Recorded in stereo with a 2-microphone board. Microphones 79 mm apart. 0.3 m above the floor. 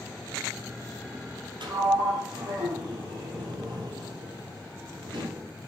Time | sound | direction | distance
1.6 | a sliding door | 80° right | 2 m